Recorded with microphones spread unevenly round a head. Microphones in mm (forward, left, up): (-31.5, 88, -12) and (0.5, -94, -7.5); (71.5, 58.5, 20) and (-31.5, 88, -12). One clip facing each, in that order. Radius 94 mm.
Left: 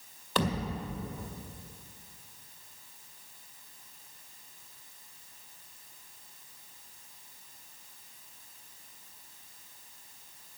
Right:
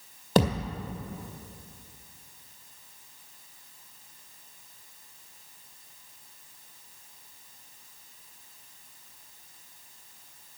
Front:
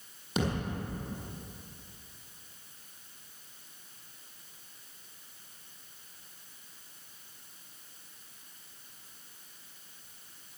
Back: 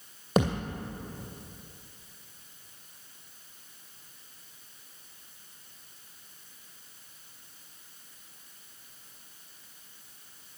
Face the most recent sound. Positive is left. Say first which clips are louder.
# right 6 dB, back 5 dB
turn(degrees=-130)